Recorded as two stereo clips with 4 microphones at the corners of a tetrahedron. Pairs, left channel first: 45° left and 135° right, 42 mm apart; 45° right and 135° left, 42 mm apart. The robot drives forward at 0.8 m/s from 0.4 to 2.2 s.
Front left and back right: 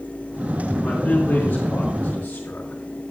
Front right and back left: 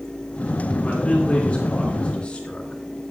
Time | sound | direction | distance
0.8 | a man speaking | 10° left | 3 m